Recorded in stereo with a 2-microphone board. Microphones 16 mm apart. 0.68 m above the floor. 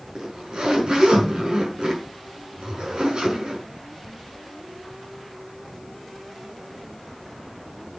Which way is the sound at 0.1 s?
65° right (ahead or behind).